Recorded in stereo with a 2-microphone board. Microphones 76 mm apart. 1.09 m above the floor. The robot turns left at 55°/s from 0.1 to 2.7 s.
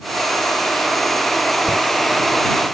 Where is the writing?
75° right (ahead or behind); by 1.8 s 80° right.